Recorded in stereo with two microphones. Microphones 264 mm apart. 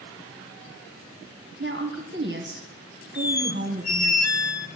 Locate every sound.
1.6 s a woman speaking: 45° right (ahead or behind), 2.5 m
3.1 s a squeak: 75° left (ahead or behind), 0.7 m